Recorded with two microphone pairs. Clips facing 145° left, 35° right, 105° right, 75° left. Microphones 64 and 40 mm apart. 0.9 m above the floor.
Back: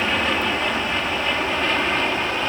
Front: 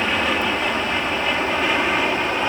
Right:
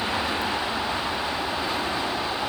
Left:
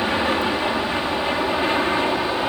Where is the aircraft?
50° left; by 2.5 s 45° left.